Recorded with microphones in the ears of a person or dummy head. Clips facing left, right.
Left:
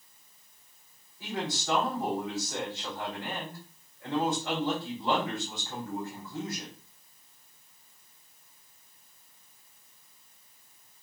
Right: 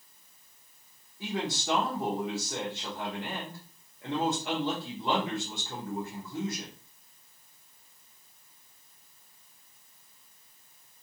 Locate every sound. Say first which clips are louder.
1.2 s a man speaking: right 1 dB; 15° right (ahead or behind), 0.8 m